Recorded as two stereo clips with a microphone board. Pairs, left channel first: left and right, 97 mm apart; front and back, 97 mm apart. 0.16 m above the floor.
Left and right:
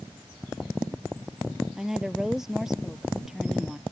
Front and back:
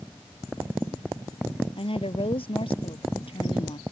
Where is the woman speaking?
5° right.